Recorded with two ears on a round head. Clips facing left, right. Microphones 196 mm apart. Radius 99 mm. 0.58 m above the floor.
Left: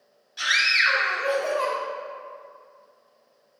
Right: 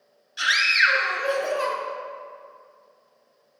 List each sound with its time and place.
0.4 s a scream: 10° right (ahead or behind), 1.6 m